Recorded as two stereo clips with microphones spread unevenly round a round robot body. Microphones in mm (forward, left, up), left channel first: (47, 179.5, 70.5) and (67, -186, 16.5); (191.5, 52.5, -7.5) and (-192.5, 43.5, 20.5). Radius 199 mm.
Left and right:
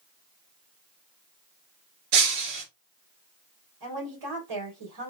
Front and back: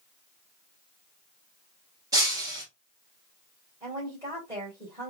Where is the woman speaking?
100° right, 2.5 m.